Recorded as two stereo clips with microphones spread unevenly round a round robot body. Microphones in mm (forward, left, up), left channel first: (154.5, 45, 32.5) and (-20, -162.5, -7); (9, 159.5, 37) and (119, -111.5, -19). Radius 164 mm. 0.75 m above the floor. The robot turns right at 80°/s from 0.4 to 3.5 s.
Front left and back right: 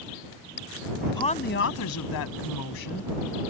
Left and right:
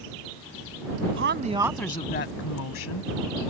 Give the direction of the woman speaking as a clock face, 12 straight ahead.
1 o'clock.